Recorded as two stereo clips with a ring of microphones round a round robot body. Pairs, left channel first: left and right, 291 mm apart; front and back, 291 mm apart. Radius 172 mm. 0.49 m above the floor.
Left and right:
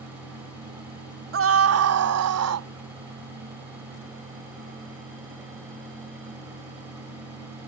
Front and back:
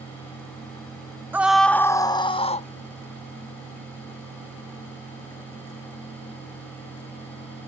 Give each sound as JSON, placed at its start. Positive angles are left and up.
{"t": 1.3, "sound": "a scream", "azimuth_deg": -100}